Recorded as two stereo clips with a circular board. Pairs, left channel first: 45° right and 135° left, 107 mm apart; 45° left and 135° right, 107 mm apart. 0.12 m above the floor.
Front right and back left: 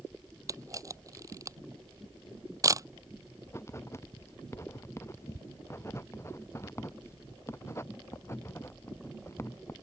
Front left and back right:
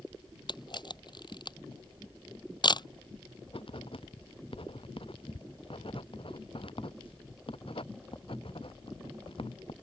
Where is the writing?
20° left.